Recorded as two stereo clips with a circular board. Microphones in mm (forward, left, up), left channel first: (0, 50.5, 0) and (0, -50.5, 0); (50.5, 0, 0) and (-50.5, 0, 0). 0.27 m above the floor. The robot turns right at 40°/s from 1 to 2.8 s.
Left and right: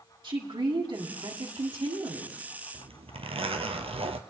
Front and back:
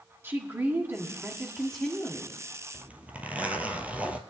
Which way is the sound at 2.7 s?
105° right.